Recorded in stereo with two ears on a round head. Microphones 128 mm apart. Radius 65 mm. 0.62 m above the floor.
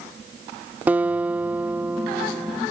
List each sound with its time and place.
0.9 s a guitar: 15° right (ahead or behind)